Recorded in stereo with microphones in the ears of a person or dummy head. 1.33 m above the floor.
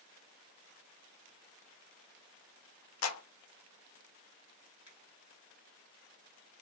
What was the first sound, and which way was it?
A clap, 80° left.